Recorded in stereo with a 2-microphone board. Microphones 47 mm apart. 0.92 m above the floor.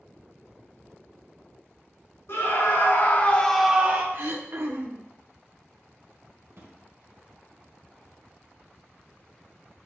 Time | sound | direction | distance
2.3 | a scream | 60° left (ahead or behind) | 2 m
4.1 | throat clearing | 50° right (ahead or behind) | 0.7 m
6.5 | a drawer | 70° right (ahead or behind) | 1.8 m